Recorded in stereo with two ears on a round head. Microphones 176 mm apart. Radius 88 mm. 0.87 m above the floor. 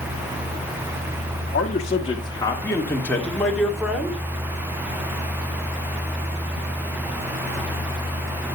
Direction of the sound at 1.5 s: 40° left (ahead or behind).